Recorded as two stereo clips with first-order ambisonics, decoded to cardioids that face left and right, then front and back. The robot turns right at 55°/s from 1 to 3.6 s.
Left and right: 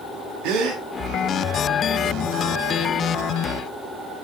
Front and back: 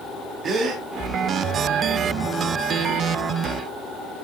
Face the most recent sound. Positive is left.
turn(degrees=25)